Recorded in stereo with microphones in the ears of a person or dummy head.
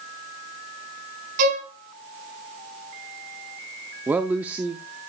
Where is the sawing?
I don't hear sawing.